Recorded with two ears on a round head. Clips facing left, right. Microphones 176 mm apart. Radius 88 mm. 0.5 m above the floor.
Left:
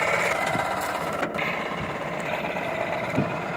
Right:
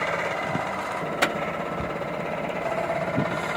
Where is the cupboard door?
50° right (ahead or behind), 5 m.